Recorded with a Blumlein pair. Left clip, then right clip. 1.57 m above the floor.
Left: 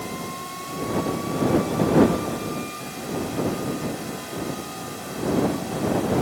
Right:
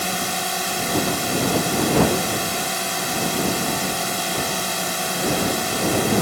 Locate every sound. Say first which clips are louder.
0.0 s a drone: right 8 dB; 55° right